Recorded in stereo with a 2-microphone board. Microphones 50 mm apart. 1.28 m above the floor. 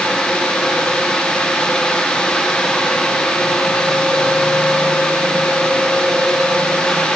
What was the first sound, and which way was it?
Only background noise.